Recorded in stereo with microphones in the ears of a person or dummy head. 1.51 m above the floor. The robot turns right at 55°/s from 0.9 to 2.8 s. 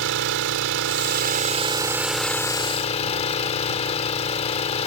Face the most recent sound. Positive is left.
turn(degrees=35)